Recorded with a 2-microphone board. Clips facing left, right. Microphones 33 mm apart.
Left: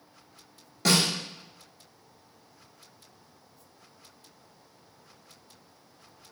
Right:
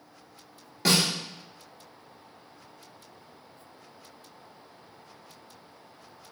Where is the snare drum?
10° right (ahead or behind), 1.0 m.